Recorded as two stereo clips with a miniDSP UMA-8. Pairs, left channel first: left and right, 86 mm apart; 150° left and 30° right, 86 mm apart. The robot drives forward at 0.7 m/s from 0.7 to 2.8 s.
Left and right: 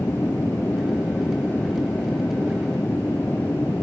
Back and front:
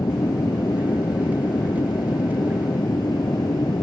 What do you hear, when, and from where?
0.0 s an aircraft: 150° left